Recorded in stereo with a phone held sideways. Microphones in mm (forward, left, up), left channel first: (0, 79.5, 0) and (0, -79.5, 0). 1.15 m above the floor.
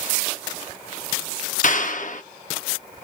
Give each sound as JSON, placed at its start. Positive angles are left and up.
{"t": 1.6, "sound": "a clap", "side_deg": 60, "distance_m": 0.6}